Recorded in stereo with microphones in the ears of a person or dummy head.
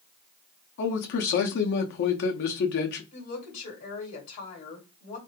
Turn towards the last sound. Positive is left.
turn(degrees=50)  # may be behind; listen again after turning